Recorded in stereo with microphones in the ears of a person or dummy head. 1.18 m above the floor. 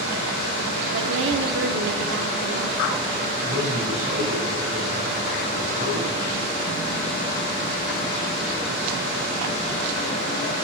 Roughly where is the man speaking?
Right.